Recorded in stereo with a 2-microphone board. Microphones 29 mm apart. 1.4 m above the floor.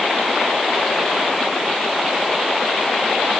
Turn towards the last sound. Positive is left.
No sound to turn to.